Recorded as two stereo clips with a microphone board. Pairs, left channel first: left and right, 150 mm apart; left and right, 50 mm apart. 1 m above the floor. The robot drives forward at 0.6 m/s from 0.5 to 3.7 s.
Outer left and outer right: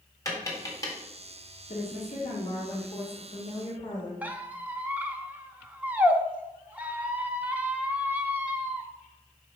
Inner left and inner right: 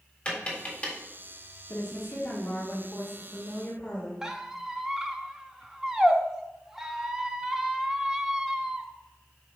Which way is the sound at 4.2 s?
10° right (ahead or behind).